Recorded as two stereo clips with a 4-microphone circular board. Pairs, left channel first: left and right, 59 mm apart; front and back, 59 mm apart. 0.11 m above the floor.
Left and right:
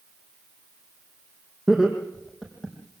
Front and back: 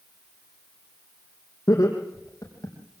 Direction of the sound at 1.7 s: 5° right.